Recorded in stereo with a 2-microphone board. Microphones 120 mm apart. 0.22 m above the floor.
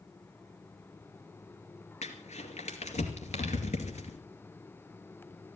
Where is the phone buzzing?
No phone buzzing in this recording.